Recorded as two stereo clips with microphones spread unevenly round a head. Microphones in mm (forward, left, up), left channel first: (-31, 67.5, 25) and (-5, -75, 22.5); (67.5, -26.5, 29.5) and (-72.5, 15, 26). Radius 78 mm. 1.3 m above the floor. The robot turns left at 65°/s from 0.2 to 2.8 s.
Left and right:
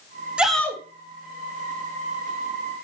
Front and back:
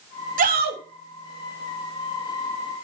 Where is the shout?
160° right, 2.5 m; by 0.8 s 170° left, 2.5 m.